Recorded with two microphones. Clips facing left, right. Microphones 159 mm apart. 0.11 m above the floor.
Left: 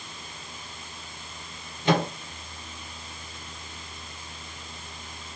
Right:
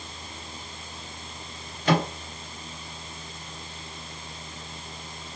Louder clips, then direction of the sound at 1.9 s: Even; 25° left (ahead or behind).